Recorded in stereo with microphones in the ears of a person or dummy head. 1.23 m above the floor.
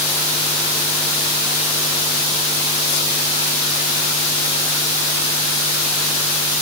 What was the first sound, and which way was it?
Only background noise.